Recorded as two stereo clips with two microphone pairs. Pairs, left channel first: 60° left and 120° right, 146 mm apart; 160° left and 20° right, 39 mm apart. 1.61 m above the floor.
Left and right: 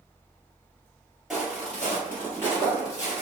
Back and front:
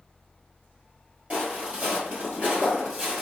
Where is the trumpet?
No trumpet in this recording.